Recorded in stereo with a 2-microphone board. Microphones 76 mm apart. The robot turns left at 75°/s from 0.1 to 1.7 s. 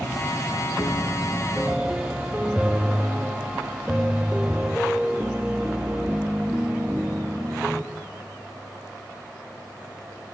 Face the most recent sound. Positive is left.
turn(degrees=-15)